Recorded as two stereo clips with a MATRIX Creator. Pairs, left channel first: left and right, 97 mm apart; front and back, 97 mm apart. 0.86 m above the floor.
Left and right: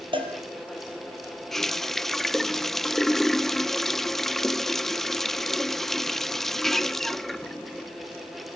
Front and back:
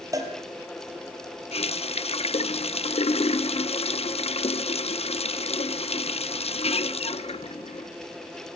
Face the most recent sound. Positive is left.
turn(degrees=5)